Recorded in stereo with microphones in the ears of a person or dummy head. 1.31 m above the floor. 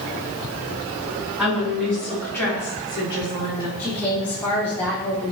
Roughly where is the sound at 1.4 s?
Centre.